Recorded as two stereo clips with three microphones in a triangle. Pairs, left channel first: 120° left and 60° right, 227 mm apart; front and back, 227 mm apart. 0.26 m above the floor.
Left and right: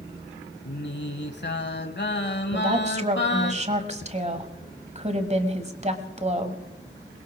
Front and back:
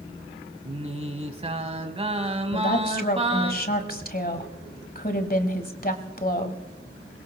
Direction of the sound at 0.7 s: 125° left.